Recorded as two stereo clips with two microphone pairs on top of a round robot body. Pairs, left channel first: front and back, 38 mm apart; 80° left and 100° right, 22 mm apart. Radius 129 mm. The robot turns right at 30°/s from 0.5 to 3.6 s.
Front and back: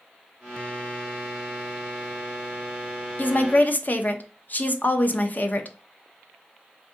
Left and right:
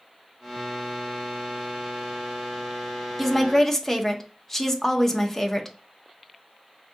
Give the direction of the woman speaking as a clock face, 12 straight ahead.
12 o'clock.